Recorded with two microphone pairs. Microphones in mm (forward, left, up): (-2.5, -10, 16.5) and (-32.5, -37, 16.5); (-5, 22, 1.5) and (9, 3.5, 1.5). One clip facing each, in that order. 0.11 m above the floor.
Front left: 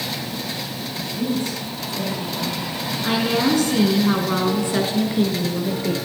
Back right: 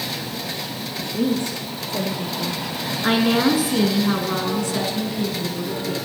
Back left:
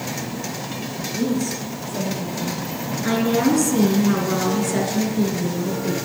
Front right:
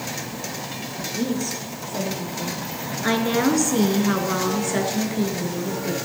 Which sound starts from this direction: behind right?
A woman speaking, at 1.0 s.